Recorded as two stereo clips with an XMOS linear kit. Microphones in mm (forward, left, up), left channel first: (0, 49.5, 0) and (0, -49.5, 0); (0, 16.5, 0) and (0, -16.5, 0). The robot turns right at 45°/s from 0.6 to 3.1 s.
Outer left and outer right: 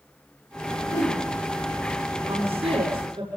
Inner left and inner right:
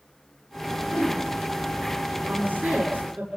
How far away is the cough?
I don't hear a cough.